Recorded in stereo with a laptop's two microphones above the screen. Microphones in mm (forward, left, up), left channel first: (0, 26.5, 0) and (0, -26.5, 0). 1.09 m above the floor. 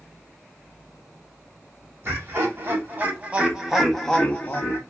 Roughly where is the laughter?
Right.